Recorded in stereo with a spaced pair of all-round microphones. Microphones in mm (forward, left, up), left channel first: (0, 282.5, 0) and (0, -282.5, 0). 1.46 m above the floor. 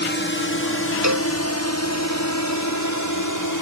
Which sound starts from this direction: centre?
A drone, at 0.0 s.